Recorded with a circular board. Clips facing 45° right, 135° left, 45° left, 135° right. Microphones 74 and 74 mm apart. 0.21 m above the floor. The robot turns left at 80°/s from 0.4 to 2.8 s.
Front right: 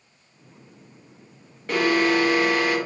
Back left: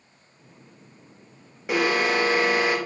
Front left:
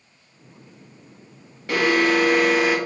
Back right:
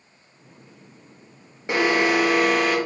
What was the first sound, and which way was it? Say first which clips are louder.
An alarm: front right 2 dB, front left 1 dB; 165° right.